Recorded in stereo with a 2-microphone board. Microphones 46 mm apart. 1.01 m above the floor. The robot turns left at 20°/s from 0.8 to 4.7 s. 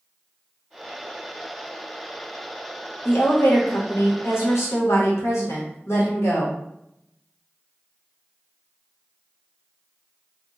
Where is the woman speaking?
120° left, 1.2 m; by 6.5 s 85° left, 1.2 m.